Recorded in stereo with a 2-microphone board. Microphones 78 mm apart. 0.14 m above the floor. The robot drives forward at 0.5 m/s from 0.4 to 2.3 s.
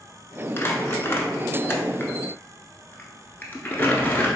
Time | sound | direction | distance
0.6 | crumpling | 35° left (ahead or behind) | 0.7 m